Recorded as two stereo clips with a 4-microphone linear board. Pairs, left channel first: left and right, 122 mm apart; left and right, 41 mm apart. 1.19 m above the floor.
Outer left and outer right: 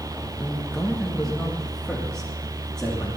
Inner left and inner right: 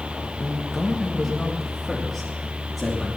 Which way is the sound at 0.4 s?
5° left (ahead or behind).